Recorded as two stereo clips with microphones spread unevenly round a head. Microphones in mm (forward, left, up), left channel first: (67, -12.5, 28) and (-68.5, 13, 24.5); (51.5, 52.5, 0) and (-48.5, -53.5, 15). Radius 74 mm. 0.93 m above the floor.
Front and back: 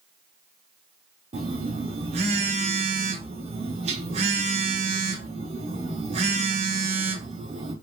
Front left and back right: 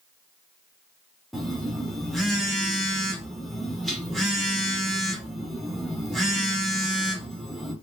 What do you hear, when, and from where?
1.3 s a phone buzzing: 145° left, 0.6 m